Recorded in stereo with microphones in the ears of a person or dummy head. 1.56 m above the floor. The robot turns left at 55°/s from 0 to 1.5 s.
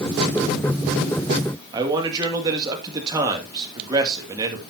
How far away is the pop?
I don't hear a pop.